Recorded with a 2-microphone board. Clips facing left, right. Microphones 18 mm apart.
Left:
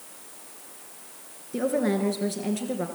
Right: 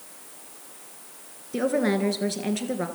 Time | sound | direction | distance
1.5 | a woman speaking | 30° right (ahead or behind) | 1.7 m